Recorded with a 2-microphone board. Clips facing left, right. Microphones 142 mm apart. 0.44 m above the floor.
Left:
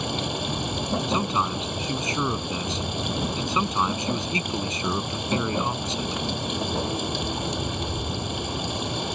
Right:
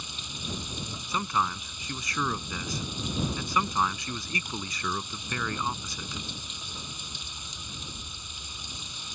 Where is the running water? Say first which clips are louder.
Left 14 dB; 70° left (ahead or behind).